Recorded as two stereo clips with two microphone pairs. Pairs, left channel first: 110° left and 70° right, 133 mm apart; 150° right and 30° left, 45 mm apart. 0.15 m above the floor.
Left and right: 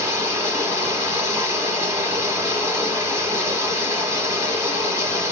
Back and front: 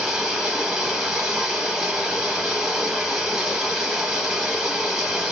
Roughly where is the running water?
Ahead right.